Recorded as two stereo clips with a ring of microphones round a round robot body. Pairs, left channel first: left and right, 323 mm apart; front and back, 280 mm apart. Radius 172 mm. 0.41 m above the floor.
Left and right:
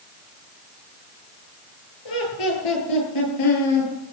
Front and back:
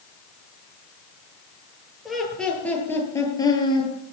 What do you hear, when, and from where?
2.0 s laughter: 90° left, 8.5 m; by 3.9 s 70° left, 8.5 m